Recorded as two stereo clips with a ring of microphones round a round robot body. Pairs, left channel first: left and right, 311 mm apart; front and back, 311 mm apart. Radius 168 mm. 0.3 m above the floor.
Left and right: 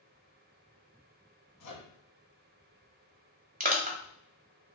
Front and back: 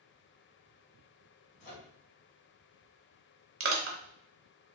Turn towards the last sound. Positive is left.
turn(degrees=-145)